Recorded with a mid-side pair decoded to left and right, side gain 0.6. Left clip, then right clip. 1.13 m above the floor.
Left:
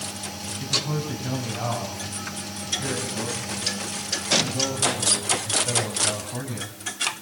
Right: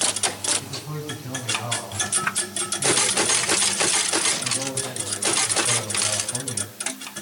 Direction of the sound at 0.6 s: 40° left.